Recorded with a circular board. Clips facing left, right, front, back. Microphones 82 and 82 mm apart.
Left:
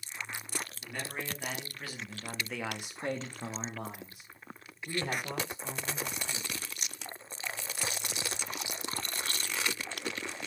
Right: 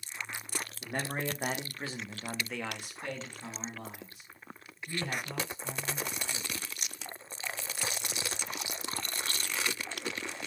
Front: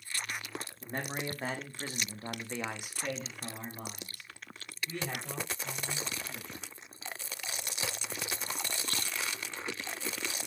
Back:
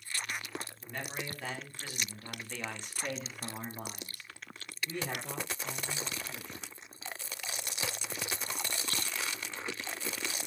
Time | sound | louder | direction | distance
0.8 | a man speaking | right 8 dB, front 6 dB | 55° right | 1.4 m